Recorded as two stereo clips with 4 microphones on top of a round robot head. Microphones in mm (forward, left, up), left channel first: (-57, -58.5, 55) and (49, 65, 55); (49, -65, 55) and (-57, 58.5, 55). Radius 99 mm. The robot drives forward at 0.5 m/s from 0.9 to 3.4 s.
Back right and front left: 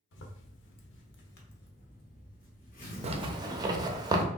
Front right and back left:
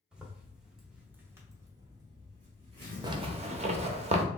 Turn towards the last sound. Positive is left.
turn(degrees=105)